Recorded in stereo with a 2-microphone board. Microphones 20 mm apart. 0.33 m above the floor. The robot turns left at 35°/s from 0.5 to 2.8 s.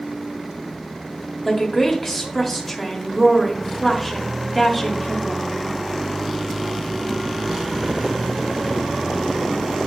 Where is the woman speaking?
15° left (ahead or behind), 1.4 m; by 5.6 s centre (ahead or behind), 1.4 m.